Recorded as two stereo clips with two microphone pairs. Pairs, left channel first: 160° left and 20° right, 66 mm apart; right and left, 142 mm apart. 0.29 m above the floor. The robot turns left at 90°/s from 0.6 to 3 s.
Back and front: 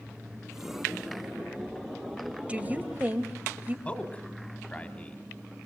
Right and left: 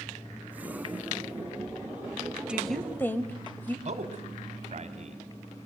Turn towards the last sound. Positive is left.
turn(degrees=95)